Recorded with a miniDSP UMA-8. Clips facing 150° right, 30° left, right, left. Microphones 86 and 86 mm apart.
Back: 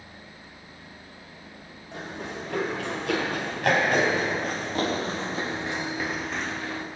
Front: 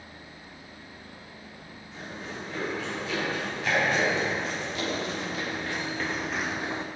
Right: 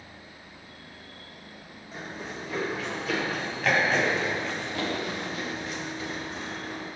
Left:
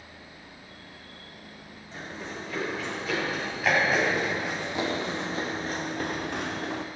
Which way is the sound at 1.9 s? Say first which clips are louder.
Back 4 dB, even; 175° right.